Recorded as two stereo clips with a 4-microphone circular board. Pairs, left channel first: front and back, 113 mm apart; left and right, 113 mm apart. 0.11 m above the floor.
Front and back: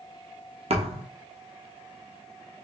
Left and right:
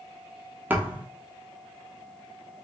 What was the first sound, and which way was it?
A thud, 165° right.